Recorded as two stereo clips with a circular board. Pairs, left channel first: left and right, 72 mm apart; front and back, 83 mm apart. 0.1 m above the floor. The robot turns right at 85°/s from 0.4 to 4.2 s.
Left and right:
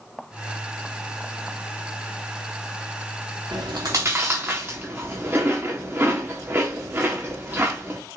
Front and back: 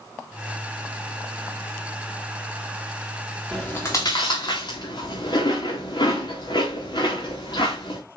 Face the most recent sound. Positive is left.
turn(degrees=-25)